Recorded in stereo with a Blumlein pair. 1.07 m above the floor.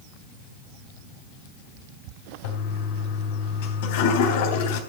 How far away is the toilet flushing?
About 3.5 m.